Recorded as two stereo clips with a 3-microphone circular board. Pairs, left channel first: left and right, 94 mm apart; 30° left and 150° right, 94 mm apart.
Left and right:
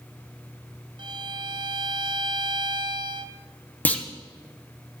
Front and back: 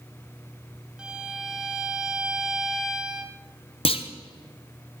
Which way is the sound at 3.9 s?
15° left.